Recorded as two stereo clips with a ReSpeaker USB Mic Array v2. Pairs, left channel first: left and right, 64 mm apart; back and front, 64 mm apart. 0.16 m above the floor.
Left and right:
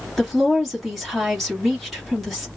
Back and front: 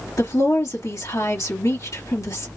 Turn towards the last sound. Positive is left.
turn(degrees=180)